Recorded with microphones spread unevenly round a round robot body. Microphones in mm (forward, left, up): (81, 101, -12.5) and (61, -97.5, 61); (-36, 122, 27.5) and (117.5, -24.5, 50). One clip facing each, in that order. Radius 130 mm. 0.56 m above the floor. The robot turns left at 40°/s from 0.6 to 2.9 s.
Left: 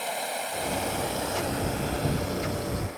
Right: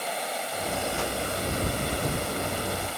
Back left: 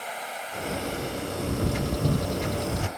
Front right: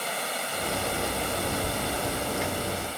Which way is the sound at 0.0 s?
10° right.